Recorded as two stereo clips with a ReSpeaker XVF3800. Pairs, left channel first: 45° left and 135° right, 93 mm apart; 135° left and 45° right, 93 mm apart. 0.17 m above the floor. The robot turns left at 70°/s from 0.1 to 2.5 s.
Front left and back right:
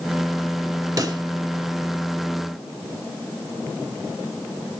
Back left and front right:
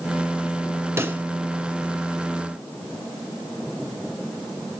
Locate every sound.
1.0 s a pop: 100° right, 1.2 m; by 1.2 s 120° right, 1.2 m